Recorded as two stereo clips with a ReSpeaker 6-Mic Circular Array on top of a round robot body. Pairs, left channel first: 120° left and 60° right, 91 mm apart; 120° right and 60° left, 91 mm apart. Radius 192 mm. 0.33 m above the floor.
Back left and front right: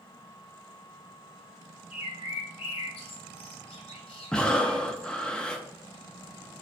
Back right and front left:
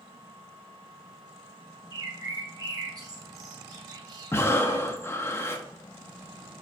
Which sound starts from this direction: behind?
Breathing, at 4.3 s.